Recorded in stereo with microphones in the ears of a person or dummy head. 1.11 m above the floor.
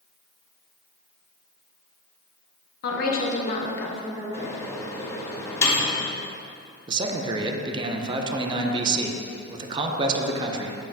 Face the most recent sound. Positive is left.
turn(degrees=-30)  # may be behind; listen again after turning